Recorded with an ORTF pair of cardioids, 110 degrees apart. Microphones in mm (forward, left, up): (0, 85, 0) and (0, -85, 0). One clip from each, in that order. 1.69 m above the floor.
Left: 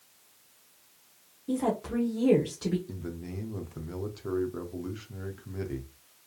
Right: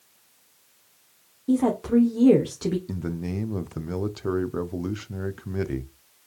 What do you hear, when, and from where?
1.5 s a woman speaking: 30° right, 1.2 m
2.9 s a man speaking: 40° right, 0.6 m